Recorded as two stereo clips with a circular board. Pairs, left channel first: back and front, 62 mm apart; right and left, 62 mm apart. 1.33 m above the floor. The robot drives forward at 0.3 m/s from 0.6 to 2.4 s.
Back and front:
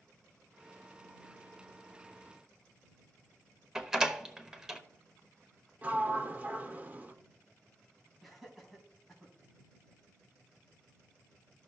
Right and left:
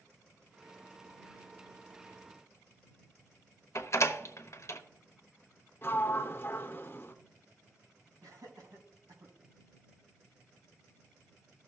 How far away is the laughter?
About 2.5 m.